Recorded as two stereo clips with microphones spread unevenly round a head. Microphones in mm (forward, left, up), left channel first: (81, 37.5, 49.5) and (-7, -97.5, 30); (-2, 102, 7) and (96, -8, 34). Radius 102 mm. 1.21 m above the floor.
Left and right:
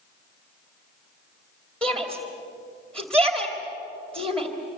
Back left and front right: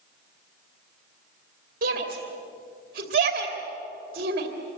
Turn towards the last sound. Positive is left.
turn(degrees=-30)